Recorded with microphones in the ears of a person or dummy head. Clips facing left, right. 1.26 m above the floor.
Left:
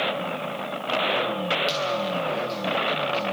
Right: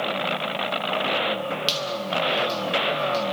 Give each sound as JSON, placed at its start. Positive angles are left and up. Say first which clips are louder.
{"t": 1.7, "sound": "a squeak", "louder": "left 2 dB", "side_deg": -15, "distance_m": 2.5}